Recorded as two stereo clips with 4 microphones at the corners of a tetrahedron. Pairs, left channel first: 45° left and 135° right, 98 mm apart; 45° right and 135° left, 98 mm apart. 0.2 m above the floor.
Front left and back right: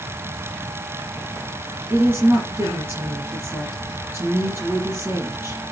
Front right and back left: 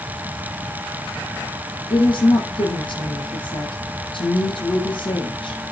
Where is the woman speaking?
65° right, 2.5 m.